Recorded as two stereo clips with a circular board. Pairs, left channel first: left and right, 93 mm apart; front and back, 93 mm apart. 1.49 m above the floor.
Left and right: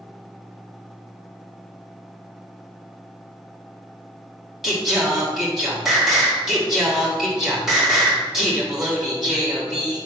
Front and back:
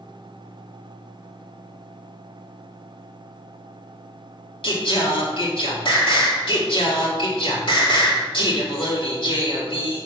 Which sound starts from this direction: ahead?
Singing, at 4.6 s.